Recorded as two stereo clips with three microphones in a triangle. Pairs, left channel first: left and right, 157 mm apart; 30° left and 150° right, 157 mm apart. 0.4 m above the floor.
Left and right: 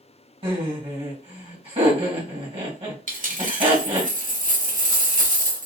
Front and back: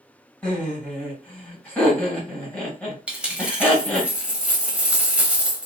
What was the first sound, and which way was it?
Laughter, 50° right.